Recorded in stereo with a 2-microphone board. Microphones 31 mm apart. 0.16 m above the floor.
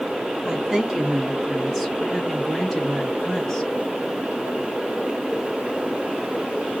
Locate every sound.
0.5 s a woman speaking: 25° right (ahead or behind), 1.1 m; by 3.7 s 10° left (ahead or behind), 1.9 m